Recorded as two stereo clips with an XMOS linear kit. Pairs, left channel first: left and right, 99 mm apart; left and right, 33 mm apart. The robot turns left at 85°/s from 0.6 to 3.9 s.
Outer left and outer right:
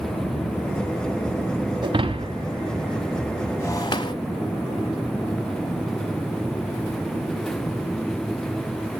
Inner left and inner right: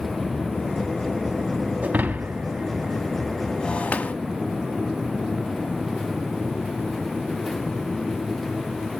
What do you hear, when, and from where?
1.8 s breaking glass: 50° right (ahead or behind), 1.4 m; by 4.1 s 45° left (ahead or behind), 1.4 m